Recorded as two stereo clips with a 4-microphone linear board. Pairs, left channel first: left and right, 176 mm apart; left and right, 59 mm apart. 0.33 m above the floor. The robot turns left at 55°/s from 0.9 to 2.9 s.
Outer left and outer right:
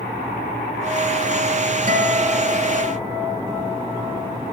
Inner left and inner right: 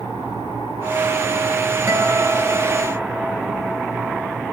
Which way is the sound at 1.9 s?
120° right.